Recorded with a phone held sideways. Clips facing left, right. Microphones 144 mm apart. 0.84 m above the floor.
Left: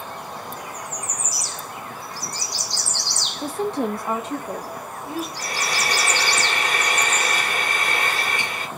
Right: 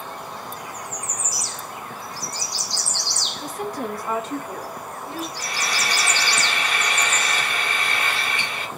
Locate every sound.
3.4 s a woman speaking: 30° left (ahead or behind), 0.6 m; by 5.3 s 10° left (ahead or behind), 3 m
5.4 s frying: 40° left (ahead or behind), 2 m